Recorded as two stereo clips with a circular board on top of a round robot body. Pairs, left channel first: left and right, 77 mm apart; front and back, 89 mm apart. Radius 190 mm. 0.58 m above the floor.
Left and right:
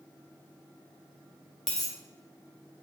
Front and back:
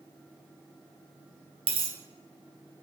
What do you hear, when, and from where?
1.7 s a dropped coin: 175° left, 0.5 m